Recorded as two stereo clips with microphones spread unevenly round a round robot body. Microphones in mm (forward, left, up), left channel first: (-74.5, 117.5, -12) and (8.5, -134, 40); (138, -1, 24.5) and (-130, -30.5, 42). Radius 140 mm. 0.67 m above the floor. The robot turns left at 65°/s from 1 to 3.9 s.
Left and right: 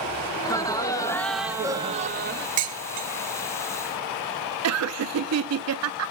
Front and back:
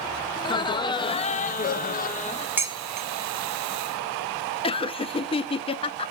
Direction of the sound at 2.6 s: 90° right.